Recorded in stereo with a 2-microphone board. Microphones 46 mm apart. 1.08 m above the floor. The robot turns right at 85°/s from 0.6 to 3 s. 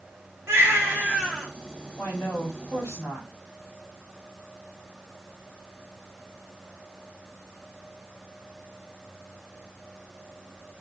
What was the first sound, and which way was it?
A baby crying, 65° right.